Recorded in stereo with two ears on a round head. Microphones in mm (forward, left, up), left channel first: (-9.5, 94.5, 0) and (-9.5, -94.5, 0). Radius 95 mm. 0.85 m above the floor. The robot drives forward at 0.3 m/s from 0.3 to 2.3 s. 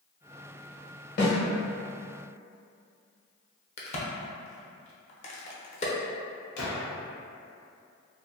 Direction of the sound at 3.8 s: 35° left (ahead or behind).